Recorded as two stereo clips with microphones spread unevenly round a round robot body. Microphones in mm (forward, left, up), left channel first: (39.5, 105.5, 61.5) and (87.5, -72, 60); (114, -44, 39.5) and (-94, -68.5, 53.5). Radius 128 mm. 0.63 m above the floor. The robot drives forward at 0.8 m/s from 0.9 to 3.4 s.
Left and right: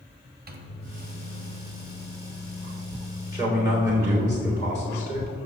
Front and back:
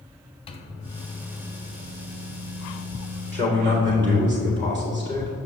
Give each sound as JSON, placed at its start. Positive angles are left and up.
{"t": 0.5, "sound": "a microwave", "azimuth_deg": -50, "distance_m": 0.8}
{"t": 3.3, "sound": "a man speaking", "azimuth_deg": -145, "distance_m": 2.0}